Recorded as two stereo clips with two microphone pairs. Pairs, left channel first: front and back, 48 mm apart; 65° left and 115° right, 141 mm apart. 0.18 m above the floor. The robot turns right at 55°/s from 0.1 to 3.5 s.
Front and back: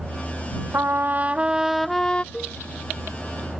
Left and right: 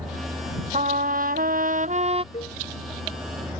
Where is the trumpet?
150° right; by 2.2 s 65° right.